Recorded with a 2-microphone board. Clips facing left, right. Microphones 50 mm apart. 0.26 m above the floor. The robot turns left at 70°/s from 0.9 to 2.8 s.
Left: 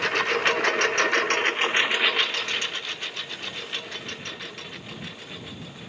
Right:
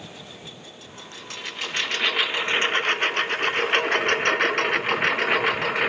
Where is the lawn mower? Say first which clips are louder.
Left 18 dB; 85° left; by 5.9 s 75° right (ahead or behind).